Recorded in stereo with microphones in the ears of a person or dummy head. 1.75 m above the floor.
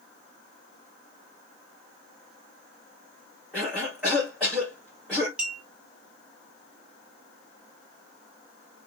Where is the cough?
5° right (ahead or behind), 2.5 m.